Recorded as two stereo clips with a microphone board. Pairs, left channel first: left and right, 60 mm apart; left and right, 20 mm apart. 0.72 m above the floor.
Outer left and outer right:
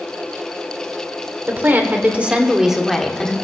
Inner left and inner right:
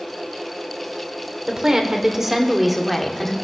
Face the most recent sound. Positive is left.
turn(degrees=15)  # may be behind; listen again after turning